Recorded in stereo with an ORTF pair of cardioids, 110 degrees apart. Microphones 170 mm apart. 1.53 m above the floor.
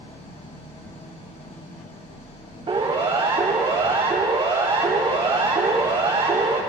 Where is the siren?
35° right, 6 m.